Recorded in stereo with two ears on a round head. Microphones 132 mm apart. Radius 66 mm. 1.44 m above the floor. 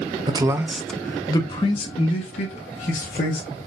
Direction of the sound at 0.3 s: 30° right (ahead or behind).